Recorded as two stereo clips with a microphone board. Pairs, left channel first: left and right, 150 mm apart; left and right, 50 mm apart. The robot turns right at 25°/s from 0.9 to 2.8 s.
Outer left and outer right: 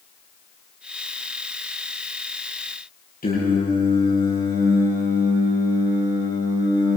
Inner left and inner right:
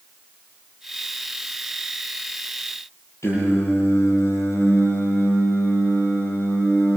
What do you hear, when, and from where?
3.2 s singing: 80° left, 9 m